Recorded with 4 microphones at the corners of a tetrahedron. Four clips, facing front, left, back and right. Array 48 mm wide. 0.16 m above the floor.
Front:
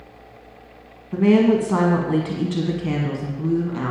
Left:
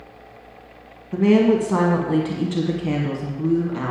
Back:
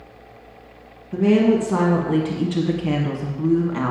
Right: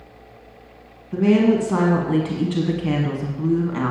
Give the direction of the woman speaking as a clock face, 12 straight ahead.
11 o'clock.